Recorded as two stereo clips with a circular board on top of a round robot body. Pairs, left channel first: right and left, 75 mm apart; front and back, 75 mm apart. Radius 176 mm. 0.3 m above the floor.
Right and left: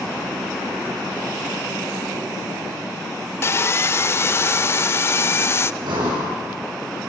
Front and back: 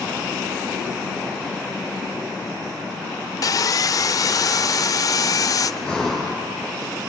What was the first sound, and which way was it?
Sawing, 35° right.